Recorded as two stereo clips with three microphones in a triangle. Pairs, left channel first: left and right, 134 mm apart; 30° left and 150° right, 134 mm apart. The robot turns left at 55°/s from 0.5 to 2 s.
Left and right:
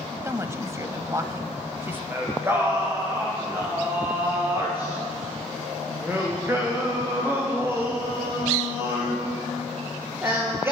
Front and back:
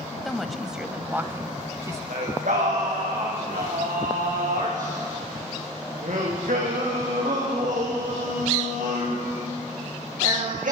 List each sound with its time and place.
0.2 s a woman speaking: 60° right, 1.0 m; by 2.0 s 145° right, 1.0 m
2.1 s singing: 160° right, 8 m